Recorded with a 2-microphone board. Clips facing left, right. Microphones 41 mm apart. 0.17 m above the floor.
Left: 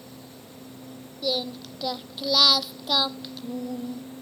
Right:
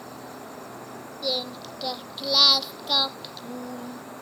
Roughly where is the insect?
Right.